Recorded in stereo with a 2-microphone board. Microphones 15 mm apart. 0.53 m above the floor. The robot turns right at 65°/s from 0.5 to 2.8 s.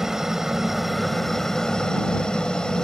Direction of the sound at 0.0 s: 35° right.